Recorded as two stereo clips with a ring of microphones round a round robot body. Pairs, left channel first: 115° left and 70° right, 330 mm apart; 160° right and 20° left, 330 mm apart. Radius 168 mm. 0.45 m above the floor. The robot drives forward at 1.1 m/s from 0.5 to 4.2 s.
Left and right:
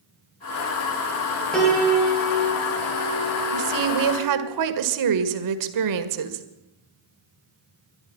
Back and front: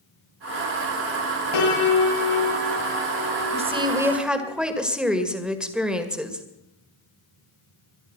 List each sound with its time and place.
1.5 s a piano: 160° right, 7.5 m; by 4.5 s 165° right, 10 m
3.5 s a woman speaking: 45° right, 2.5 m; by 6.5 s 65° right, 2.0 m